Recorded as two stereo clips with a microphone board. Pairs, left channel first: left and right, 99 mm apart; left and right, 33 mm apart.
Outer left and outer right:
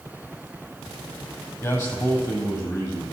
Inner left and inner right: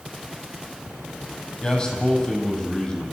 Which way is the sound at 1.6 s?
35° left (ahead or behind).